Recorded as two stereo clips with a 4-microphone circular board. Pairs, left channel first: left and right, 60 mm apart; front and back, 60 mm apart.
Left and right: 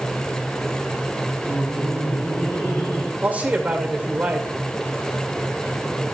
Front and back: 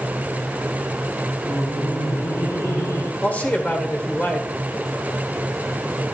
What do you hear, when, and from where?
1.4 s laughter: 40° left, 3.5 m; by 3.1 s 45° left, 2 m
3.2 s a man speaking: 45° right, 1.7 m